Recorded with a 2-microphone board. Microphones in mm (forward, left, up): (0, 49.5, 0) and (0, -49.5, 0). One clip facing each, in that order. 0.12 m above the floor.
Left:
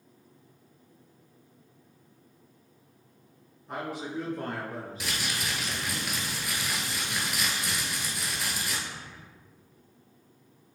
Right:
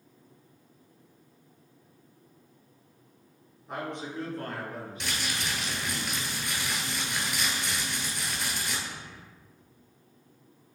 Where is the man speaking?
5° right (ahead or behind), 1.2 m; by 6.0 s 55° left (ahead or behind), 2.0 m.